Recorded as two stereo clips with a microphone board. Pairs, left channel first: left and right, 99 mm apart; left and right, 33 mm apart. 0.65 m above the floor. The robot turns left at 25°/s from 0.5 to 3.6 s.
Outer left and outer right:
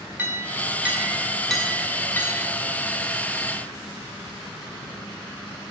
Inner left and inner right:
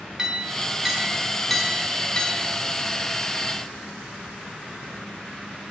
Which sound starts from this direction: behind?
A clink, at 0.2 s.